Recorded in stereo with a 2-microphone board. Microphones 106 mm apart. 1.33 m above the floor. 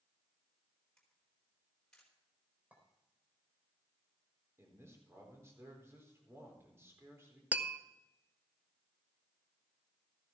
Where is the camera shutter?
5° left (ahead or behind), 4 m.